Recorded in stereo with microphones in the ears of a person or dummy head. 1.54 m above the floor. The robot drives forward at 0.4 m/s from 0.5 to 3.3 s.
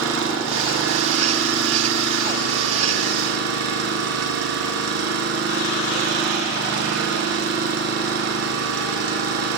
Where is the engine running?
85° right, 3.5 m; by 9.6 s 75° right (ahead or behind), 3.5 m.